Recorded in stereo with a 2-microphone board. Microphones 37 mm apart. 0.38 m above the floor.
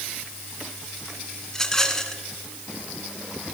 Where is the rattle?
15° left (ahead or behind), 1.7 m.